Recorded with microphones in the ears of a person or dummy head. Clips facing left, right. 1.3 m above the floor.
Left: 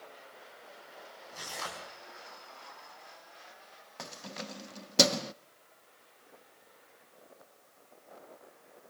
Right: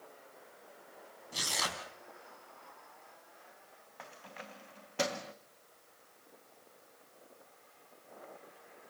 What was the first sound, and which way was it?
Tearing paper, 45° right (ahead or behind).